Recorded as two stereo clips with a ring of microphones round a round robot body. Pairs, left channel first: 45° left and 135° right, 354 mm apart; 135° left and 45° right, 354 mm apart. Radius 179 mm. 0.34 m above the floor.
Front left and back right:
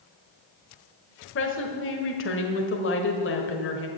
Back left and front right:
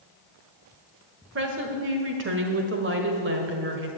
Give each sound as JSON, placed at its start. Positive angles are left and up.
{"t": 1.4, "sound": "a woman speaking", "azimuth_deg": 0, "distance_m": 1.4}